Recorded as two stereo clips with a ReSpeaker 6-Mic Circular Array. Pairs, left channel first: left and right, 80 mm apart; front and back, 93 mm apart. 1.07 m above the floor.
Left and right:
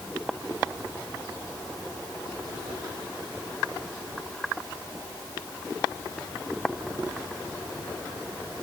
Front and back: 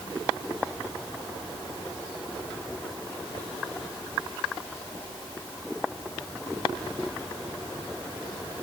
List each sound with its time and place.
Only background noise.